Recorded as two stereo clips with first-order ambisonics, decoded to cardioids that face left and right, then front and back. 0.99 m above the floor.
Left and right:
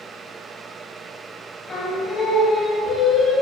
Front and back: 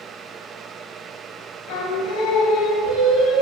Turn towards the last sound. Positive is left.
turn(degrees=20)